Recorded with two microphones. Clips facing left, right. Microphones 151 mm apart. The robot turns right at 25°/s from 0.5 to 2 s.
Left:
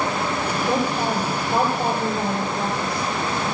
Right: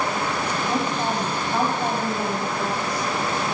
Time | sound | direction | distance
0.7 | a woman speaking | 85° left | 6.5 m